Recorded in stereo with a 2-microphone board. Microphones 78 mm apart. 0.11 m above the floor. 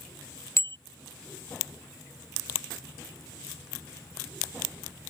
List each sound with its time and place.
0.6 s a bicycle bell: 35° left (ahead or behind)